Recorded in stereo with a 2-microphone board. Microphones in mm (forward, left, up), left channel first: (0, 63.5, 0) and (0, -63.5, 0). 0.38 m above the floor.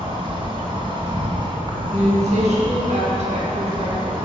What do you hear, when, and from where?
0.0 s an insect: 40° right (ahead or behind), 2.5 m
1.9 s a woman speaking: 70° right (ahead or behind), 4.5 m